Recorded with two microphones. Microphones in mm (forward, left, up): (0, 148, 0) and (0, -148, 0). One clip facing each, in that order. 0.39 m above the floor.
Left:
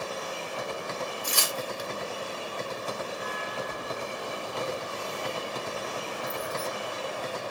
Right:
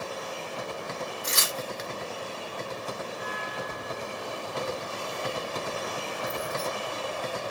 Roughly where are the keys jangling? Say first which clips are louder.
Left 1 dB; centre.